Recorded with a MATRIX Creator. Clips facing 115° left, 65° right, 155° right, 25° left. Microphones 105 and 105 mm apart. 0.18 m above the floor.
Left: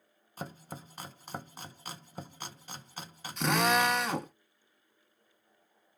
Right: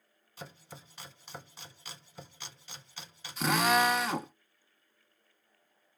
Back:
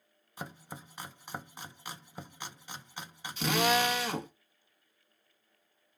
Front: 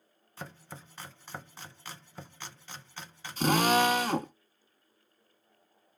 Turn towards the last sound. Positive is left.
turn(degrees=20)